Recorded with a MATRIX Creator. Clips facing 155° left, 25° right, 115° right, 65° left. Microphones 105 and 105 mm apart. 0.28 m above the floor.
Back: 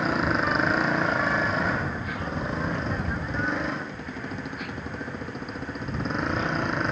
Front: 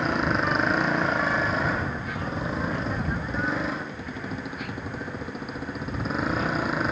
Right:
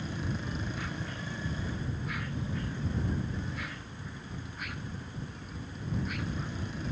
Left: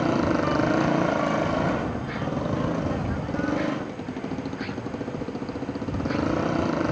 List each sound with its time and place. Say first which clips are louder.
0.0 s a motorcycle: even, left 15 dB; 70° left; by 6.9 s 65° left